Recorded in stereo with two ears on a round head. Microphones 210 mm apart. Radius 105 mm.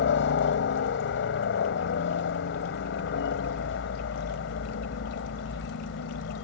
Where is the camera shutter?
No camera shutter in this recording.